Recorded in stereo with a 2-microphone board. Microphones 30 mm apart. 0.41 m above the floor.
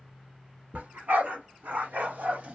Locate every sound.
0.7 s a dog barking: 80° right, 1.4 m; by 2.5 s 45° right (ahead or behind), 0.6 m